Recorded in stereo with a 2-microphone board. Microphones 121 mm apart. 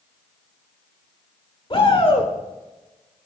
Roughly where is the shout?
Left.